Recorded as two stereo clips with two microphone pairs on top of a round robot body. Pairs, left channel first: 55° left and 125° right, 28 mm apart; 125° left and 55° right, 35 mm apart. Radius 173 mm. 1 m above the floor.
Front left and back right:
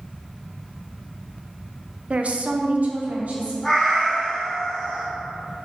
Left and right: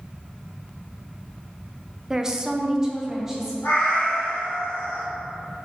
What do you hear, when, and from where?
2.1 s a woman speaking: 125° right, 0.6 m; by 3.5 s 135° right, 1.4 m
3.6 s a cat meowing: 135° left, 1.1 m